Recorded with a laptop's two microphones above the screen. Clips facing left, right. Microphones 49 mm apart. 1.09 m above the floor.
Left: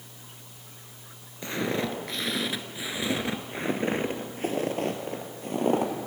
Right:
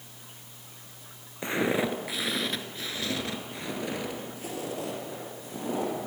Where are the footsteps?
20° right (ahead or behind), 1.2 m; by 5.9 s 55° left (ahead or behind), 2 m.